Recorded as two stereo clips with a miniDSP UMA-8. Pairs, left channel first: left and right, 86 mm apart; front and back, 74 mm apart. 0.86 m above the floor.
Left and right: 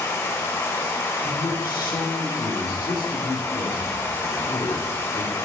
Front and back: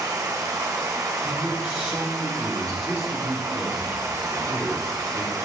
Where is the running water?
145° left, 1.2 m.